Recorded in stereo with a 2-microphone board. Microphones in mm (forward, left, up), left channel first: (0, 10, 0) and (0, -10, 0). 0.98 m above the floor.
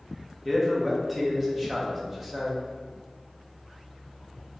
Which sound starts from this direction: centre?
A man speaking, at 0.5 s.